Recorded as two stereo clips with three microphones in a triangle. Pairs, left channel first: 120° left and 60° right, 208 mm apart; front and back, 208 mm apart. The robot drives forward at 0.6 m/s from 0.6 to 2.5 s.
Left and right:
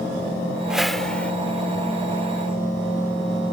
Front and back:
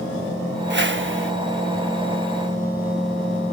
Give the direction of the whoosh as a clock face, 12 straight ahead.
5 o'clock.